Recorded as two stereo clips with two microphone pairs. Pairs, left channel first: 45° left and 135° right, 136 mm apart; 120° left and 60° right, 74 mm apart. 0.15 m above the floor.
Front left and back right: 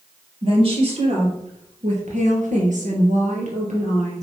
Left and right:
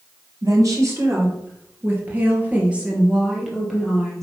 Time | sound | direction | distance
0.4 | a woman speaking | 95° right | 3 m